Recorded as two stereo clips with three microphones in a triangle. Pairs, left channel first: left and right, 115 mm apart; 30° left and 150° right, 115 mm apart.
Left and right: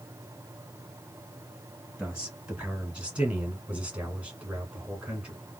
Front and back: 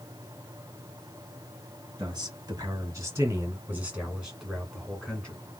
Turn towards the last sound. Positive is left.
turn(degrees=-20)